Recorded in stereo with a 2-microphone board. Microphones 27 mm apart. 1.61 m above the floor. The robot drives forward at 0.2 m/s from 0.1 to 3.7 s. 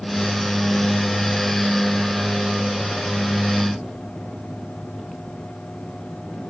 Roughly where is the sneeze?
No sneeze in this recording.